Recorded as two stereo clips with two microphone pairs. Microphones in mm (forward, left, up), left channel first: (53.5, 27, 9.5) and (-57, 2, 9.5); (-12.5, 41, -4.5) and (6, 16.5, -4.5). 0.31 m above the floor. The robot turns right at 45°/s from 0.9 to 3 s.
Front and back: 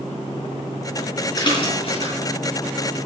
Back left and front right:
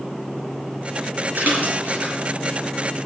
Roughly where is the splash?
Ahead right.